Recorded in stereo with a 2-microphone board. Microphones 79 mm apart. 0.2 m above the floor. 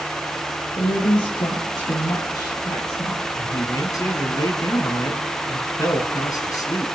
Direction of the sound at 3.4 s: 50° left (ahead or behind).